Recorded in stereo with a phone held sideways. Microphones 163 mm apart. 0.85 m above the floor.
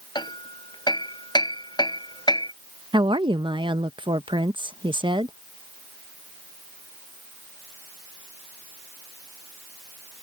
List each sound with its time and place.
0.1 s hammering: 25° left (ahead or behind)
2.9 s a woman speaking: 30° right (ahead or behind)